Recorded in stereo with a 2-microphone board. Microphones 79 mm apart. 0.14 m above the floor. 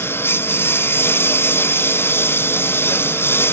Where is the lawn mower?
30° left (ahead or behind).